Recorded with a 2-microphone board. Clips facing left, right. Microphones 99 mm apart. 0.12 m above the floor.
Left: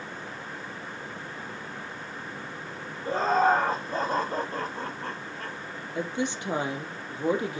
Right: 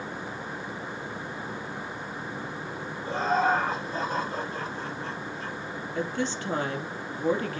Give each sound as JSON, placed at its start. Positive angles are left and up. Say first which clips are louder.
{"t": 3.0, "sound": "laughter", "louder": "left 2 dB", "side_deg": 35, "distance_m": 3.5}
{"t": 6.0, "sound": "a woman speaking", "louder": "even", "side_deg": 15, "distance_m": 3.0}